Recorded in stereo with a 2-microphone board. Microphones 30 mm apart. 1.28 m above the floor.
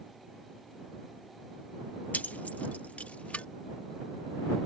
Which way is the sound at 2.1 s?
60° left (ahead or behind).